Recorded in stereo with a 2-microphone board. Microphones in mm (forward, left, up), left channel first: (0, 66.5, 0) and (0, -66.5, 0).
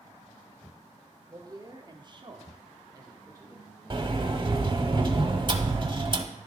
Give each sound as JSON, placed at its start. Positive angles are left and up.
{"t": 1.3, "sound": "a man speaking", "side_deg": -25, "distance_m": 0.9}
{"t": 3.9, "sound": "a sliding door", "side_deg": -35, "distance_m": 0.6}